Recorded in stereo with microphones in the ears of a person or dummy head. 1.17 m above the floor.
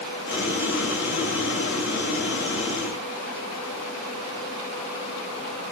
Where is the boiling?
55° left (ahead or behind), 1.6 m.